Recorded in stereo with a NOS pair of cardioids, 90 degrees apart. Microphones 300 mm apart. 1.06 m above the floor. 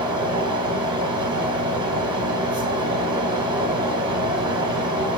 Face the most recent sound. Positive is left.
turn(degrees=-15)